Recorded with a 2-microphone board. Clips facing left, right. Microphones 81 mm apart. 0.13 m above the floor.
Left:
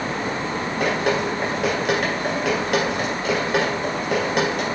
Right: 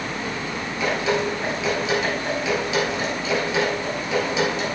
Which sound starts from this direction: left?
Dripping, at 0.8 s.